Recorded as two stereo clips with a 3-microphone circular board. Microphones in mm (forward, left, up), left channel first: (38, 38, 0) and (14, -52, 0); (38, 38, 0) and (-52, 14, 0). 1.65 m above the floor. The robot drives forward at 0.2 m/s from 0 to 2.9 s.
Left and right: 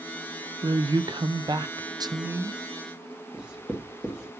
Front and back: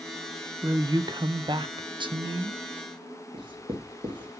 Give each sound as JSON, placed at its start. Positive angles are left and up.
{"t": 0.6, "sound": "a woman speaking", "azimuth_deg": -125, "distance_m": 0.6}
{"t": 3.3, "sound": "writing", "azimuth_deg": 175, "distance_m": 2.0}